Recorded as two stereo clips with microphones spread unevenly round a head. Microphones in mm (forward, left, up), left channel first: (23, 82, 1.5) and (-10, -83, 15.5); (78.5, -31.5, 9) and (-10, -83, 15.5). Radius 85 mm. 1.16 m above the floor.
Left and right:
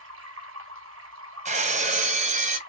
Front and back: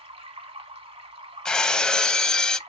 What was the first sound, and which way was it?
Running water, 120° right.